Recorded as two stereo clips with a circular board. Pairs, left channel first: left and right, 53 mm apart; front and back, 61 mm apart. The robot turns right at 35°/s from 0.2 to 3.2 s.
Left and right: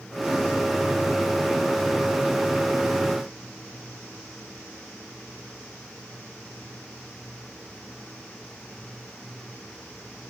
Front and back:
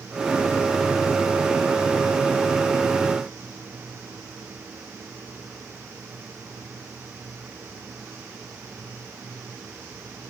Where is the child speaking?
No child speaking in this recording.